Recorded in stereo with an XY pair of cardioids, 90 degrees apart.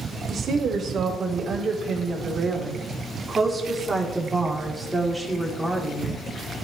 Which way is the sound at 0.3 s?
55° right.